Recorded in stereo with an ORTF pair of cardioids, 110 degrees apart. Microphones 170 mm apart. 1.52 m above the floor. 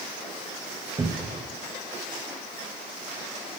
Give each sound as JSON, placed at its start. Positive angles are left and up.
{"t": 1.0, "sound": "a cupboard door", "azimuth_deg": -20, "distance_m": 0.8}